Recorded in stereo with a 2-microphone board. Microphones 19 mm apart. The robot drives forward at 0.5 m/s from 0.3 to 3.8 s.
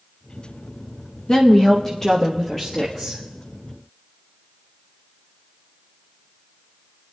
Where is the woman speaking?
40° left (ahead or behind), 0.7 m; by 3.2 s 15° left (ahead or behind), 1.5 m.